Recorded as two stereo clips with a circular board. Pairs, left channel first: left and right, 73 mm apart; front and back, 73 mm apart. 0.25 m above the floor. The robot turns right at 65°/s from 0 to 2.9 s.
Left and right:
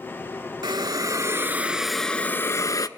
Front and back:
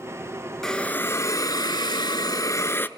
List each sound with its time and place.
0.6 s a hiss: 85° right, 0.6 m; by 2.9 s 60° left, 0.6 m